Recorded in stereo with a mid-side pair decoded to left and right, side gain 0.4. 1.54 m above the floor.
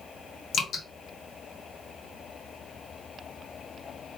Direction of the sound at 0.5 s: 65° left.